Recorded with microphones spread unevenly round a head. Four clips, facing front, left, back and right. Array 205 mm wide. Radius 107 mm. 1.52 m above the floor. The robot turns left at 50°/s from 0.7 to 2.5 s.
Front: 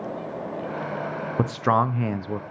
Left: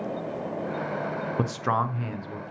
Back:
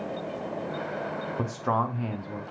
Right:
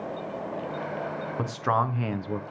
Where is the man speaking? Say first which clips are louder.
Right 1 dB, front 6 dB; 15° left, 0.6 m; by 2.4 s 35° right, 0.6 m.